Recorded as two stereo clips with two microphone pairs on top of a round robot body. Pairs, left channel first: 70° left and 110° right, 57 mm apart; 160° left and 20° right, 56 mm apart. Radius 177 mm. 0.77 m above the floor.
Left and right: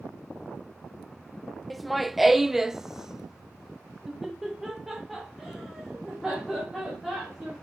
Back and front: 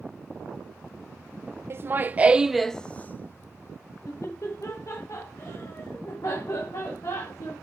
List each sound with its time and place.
1.7 s laughter: 10° right, 0.9 m; by 7.5 s 170° left, 3.5 m